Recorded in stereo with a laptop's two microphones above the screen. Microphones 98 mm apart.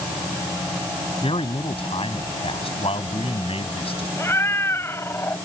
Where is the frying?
No frying in this recording.